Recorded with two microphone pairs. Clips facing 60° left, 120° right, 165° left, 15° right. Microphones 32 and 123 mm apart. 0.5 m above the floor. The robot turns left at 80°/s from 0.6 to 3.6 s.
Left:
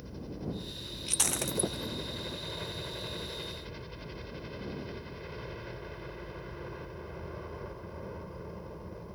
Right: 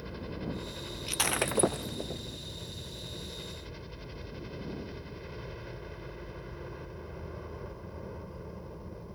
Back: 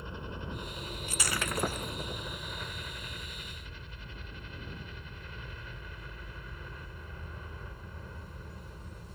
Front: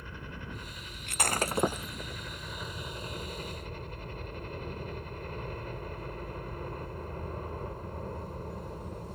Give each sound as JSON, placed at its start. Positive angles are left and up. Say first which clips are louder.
{"t": 0.0, "sound": "a helicopter", "louder": "right 2 dB, back 2 dB", "azimuth_deg": -135}
{"t": 1.1, "sound": "breaking glass", "louder": "right 4 dB, front 5 dB", "azimuth_deg": -40}